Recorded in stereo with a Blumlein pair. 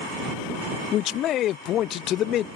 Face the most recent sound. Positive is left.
turn(degrees=30)